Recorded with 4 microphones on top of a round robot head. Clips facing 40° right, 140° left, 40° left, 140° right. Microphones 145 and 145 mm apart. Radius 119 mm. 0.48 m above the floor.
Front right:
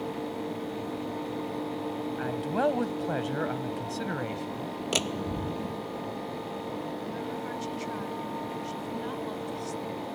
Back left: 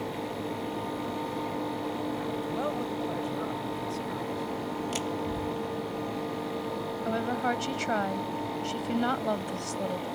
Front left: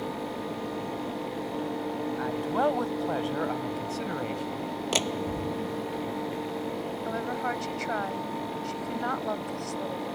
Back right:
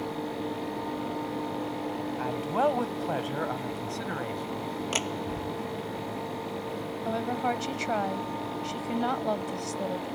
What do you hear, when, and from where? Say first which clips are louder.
2.2 s a man speaking: front right 3 dB, even; 60° right; by 4.8 s 35° right
4.9 s a door slam: even, front left 3 dB; 20° right
7.0 s a woman speaking: back left 6 dB, back right 4 dB; 155° left